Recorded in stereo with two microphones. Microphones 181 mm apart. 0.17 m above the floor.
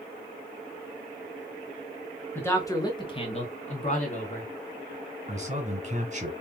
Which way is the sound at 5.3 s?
40° right (ahead or behind).